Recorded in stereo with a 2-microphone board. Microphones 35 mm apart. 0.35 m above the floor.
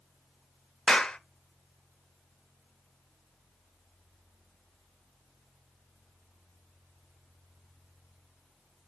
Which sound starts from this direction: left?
A clap, at 0.9 s.